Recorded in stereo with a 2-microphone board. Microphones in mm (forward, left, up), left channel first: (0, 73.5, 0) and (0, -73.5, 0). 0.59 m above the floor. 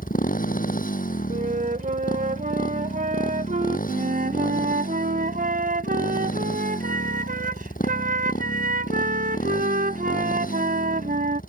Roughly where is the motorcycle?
Left.